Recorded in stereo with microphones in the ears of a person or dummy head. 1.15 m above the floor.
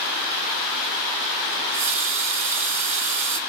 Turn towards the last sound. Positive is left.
turn(degrees=-40)  # may be behind; listen again after turning